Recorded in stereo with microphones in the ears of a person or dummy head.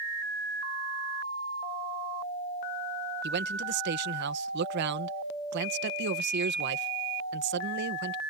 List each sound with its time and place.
3.2 s a man speaking: 60° right (ahead or behind)